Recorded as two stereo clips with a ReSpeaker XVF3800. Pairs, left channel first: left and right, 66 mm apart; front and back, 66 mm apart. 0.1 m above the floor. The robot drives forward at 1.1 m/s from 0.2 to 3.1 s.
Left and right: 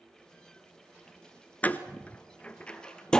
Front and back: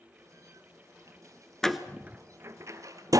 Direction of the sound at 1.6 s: 70° left.